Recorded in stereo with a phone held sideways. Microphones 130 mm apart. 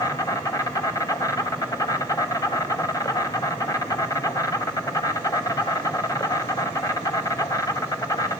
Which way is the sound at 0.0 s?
25° left (ahead or behind).